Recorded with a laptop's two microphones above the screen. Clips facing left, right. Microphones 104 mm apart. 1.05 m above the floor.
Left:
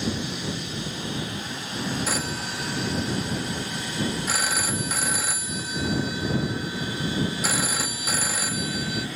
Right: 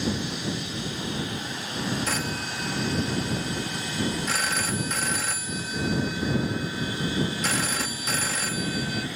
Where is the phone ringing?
10° left (ahead or behind).